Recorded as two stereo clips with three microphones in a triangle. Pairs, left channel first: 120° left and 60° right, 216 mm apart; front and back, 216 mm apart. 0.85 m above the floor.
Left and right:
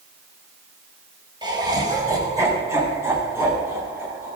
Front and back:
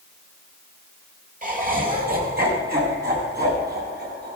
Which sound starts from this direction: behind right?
Laughter, at 1.4 s.